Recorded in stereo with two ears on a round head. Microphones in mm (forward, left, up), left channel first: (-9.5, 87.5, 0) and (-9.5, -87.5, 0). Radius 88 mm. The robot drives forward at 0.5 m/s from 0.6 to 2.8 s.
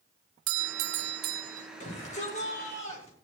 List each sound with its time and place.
0.5 s a doorbell: 80° right, 0.6 m; by 1.7 s 40° right (ahead or behind), 0.8 m
1.8 s a shout: 40° left (ahead or behind), 8.5 m